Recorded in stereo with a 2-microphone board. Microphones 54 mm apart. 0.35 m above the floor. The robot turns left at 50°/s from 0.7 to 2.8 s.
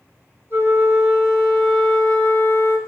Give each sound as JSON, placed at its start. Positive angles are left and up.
{"t": 0.5, "sound": "a flute", "azimuth_deg": -140, "distance_m": 2.0}